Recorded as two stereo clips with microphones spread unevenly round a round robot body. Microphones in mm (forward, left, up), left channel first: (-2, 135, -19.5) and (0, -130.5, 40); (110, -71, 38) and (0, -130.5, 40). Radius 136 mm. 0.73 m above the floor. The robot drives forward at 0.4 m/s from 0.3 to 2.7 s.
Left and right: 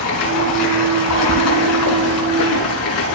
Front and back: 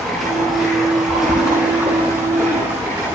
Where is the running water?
115° left, 4 m; by 3.1 s 130° left, 4.5 m.